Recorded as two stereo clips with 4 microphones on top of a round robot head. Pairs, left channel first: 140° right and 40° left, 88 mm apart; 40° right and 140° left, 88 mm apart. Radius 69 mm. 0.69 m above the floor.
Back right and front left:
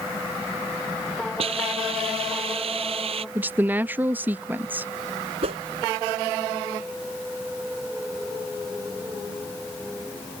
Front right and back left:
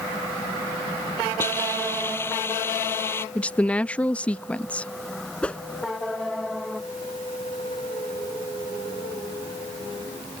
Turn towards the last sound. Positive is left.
turn(degrees=35)